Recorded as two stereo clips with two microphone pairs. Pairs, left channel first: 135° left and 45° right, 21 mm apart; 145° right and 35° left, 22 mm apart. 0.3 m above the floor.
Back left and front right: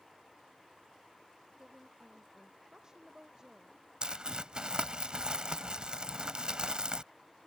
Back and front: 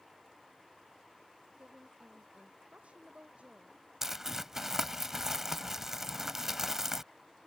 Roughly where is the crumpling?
Ahead right.